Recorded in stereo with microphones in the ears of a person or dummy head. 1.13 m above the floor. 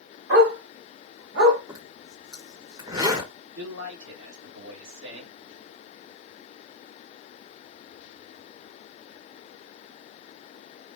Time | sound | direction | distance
0.3 | a dog barking | 65° right (ahead or behind) | 1.9 m
1.7 | a zipper | 15° right (ahead or behind) | 0.8 m
3.5 | a man speaking | 75° right (ahead or behind) | 1.4 m